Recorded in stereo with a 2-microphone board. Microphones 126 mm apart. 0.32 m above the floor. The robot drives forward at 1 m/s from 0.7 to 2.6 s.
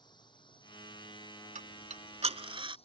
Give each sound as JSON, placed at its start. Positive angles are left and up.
{"t": 0.0, "sound": "a drone", "side_deg": 35}
{"t": 1.6, "sound": "ticking", "side_deg": -85}